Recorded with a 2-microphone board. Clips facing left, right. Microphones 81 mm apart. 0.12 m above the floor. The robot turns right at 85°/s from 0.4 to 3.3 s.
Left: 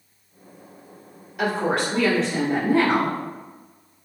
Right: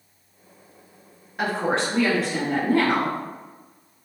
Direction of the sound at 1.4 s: 80° right.